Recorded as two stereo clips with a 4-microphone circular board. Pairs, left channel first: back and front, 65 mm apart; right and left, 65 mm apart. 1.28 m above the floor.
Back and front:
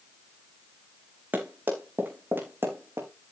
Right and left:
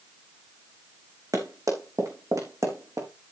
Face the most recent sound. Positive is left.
turn(degrees=55)